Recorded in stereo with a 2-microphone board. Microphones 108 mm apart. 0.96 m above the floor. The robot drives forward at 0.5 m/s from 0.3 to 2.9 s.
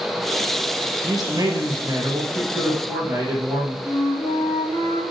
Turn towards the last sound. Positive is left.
turn(degrees=60)  # may be behind; listen again after turning